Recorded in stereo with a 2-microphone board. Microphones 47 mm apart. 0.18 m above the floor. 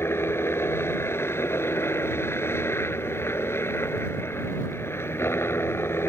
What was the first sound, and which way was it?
A helicopter, 60° left (ahead or behind).